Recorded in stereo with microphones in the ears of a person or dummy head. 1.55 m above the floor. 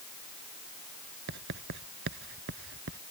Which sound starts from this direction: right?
Writing, at 1.3 s.